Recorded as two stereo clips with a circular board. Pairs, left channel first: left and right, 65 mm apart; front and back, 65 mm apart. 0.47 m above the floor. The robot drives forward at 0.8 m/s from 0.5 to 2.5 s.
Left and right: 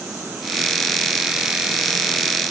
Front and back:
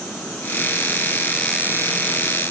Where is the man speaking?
I don't hear a man speaking.